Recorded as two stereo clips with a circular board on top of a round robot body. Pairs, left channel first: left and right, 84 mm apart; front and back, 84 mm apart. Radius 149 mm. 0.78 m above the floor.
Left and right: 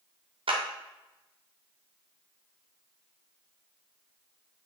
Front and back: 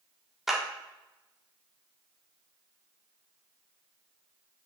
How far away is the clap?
About 1.9 m.